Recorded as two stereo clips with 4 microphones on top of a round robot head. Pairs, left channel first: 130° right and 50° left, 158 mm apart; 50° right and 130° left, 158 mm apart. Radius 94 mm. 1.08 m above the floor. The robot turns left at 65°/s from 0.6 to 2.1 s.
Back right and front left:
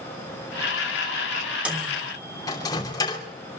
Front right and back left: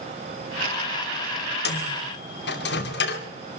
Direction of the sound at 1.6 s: 30° right.